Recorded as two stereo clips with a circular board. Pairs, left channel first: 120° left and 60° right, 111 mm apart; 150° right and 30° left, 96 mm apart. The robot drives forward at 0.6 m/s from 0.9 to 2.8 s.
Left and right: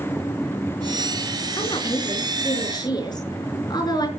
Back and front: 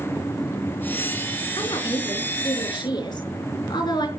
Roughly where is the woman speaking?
Behind.